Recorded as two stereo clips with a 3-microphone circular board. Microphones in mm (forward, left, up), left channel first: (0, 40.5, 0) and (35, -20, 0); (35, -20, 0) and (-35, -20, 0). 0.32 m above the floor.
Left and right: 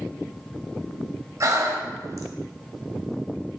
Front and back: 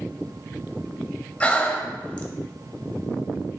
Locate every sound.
1.4 s breathing: 65° right, 0.6 m